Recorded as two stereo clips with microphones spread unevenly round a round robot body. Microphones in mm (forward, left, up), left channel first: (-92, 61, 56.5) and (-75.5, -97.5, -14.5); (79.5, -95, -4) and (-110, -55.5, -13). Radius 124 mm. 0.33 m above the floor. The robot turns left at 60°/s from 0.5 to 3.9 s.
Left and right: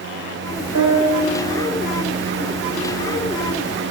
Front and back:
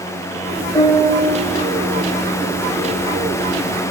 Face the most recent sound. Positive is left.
turn(degrees=-120)